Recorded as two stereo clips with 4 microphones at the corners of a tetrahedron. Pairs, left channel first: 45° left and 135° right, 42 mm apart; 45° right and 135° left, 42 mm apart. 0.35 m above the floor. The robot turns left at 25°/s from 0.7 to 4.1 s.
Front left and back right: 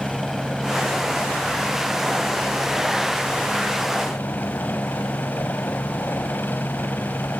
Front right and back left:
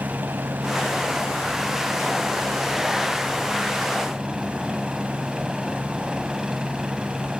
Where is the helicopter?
140° left; by 7.4 s 55° left.